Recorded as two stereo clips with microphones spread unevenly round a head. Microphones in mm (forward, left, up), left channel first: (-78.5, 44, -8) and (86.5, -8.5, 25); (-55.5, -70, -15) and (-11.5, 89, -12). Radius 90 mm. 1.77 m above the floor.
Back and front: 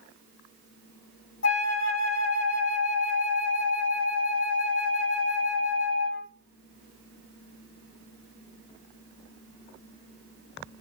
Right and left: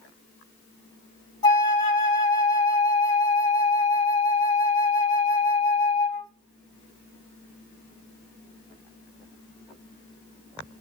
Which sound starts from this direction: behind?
A flute, at 1.4 s.